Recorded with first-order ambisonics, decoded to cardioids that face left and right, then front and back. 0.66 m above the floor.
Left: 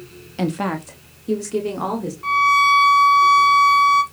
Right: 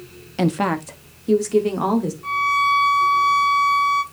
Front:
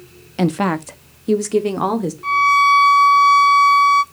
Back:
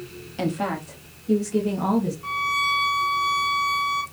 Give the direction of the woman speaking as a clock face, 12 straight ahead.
1 o'clock.